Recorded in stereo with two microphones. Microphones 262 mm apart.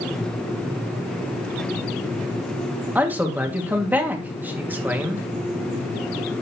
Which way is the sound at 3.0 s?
5° right (ahead or behind).